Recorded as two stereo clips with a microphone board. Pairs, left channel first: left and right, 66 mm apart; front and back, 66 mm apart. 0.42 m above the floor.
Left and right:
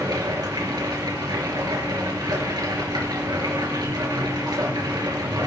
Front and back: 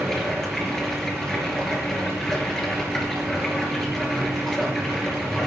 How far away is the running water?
About 3.5 m.